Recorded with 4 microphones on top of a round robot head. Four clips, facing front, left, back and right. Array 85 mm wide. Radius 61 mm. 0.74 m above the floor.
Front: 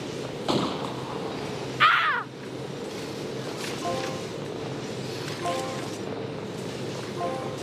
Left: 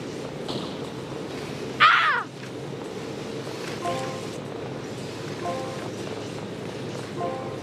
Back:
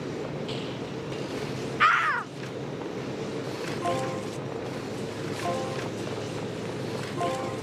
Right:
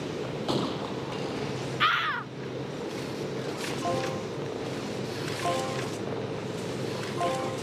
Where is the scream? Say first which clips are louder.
Left 9 dB, front 1 dB; 80° left.